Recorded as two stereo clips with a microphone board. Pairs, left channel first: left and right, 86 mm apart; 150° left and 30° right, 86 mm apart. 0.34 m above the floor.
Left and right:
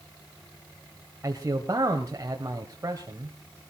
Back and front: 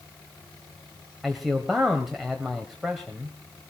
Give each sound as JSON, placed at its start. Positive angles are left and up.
{"t": 1.2, "sound": "a man speaking", "azimuth_deg": -115, "distance_m": 1.6}